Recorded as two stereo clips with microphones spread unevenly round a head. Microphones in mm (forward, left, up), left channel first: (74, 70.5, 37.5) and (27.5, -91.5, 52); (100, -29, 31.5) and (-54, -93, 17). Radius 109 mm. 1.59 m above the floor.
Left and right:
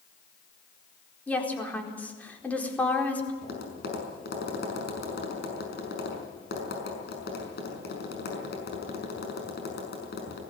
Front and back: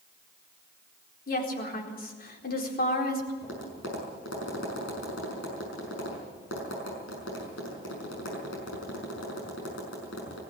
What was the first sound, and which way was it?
A woman speaking, 10° right.